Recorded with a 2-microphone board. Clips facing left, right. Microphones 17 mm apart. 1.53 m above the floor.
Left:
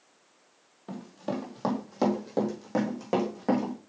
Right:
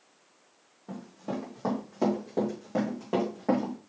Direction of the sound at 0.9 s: 45° left (ahead or behind).